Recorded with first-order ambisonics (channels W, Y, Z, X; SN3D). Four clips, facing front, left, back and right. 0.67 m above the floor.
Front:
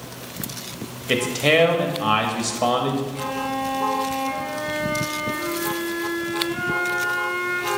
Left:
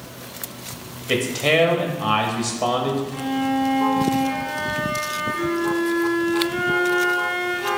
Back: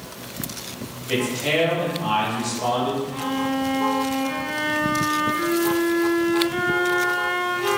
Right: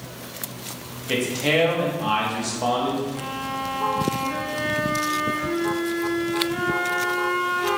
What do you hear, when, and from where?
1.1 s a man speaking: 20° left, 1.0 m
3.1 s a violin: 160° left, 2.5 m